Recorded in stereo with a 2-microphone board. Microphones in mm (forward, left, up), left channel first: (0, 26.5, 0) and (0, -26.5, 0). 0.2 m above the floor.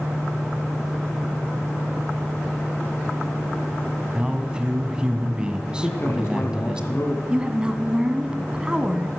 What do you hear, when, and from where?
4.2 s a man speaking: 15° right (ahead or behind), 1.6 m
5.8 s a man speaking: 45° left (ahead or behind), 1.7 m
7.3 s a woman speaking: 15° right (ahead or behind), 1.2 m